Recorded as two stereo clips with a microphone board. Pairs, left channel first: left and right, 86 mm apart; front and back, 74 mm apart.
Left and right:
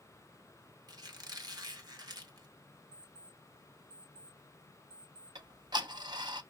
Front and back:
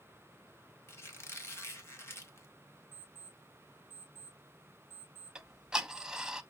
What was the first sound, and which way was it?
A squeak, 55° right.